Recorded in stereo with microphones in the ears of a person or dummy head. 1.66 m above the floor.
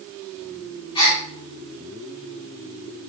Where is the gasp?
30° left (ahead or behind), 0.9 m.